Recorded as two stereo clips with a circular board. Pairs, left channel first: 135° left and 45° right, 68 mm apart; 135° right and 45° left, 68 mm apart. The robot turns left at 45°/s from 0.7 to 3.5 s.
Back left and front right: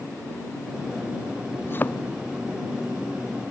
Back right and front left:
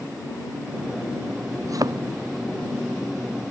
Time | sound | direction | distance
1.6 | a thud | 80° left | ?